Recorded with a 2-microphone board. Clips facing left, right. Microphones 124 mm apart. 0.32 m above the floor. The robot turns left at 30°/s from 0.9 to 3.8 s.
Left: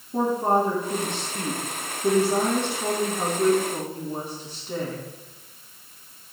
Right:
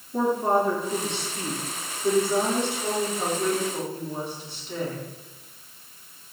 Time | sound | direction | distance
0.1 | a woman speaking | 135° left | 4 m